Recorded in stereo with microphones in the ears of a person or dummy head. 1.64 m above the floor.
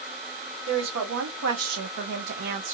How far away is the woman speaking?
About 1.1 m.